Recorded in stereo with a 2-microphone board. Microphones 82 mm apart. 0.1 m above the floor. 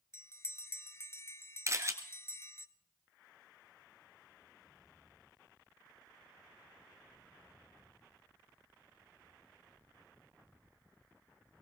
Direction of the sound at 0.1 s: 35° left (ahead or behind).